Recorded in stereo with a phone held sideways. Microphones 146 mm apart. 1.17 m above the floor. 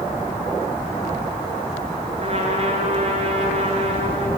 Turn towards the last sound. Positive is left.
turn(degrees=-45)  # may be behind; listen again after turning